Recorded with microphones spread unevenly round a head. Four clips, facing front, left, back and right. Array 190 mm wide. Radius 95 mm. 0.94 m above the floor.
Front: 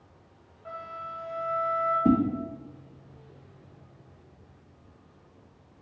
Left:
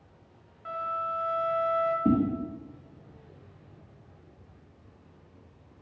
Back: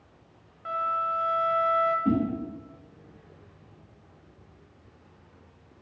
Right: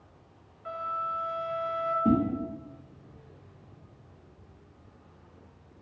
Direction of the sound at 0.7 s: 165° left.